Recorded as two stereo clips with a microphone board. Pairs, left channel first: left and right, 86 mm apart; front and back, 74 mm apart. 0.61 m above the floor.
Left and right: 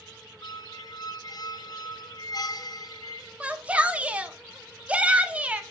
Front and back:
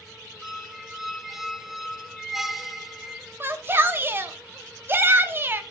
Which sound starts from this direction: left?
A squeak, at 0.4 s.